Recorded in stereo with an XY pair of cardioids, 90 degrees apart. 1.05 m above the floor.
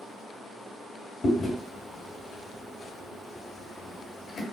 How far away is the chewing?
About 1.5 m.